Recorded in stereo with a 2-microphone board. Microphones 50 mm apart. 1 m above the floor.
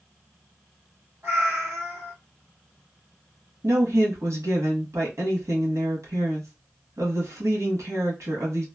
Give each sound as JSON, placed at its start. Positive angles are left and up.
{"t": 1.2, "sound": "a cat meowing", "side_deg": -50, "distance_m": 1.5}
{"t": 3.6, "sound": "a woman speaking", "side_deg": -75, "distance_m": 1.3}